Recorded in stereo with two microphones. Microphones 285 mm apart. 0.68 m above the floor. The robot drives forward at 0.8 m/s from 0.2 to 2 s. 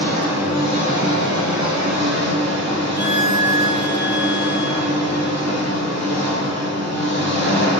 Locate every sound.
0.0 s an engine running: 55° left (ahead or behind), 1.5 m; by 7.8 s 65° left (ahead or behind), 1.3 m
3.0 s a violin: 35° left (ahead or behind), 0.6 m